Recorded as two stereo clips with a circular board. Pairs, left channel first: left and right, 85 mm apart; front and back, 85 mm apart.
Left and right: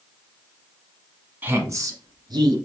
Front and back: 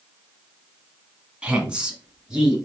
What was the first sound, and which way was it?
A woman speaking, 120° right.